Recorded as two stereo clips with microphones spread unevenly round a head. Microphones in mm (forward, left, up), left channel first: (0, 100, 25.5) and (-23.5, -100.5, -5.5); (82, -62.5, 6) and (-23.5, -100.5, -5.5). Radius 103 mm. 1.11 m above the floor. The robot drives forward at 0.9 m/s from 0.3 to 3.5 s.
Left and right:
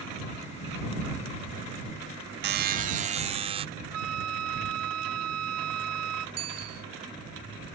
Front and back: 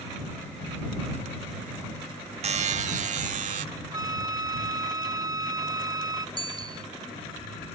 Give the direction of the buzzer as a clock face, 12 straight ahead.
5 o'clock.